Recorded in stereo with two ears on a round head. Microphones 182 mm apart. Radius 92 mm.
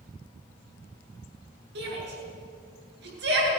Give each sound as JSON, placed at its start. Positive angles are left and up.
{"t": 1.8, "sound": "a shout", "side_deg": -55, "distance_m": 8.0}